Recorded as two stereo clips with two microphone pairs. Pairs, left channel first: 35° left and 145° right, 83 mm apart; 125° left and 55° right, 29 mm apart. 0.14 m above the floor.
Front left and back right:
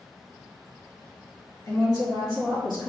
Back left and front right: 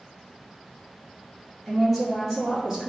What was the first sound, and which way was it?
A woman speaking, 40° left.